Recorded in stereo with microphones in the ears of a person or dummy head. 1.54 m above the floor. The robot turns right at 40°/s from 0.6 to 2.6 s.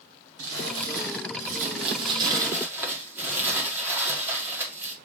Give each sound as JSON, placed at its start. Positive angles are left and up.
{"t": 0.4, "sound": "crumpling", "azimuth_deg": -95, "distance_m": 1.8}